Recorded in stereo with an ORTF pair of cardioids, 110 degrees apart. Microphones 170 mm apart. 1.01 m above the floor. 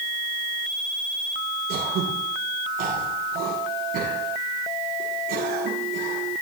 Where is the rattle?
No rattle in this recording.